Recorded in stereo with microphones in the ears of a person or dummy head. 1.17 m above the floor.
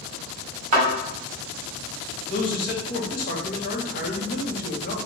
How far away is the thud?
About 1.3 m.